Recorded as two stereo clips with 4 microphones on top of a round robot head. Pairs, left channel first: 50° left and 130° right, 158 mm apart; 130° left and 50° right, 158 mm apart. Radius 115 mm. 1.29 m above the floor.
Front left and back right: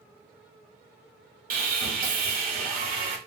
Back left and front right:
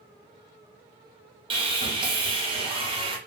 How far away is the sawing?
About 0.8 m.